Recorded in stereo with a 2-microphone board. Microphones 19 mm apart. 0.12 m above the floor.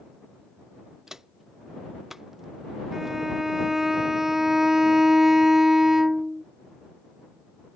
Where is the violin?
20° right (ahead or behind).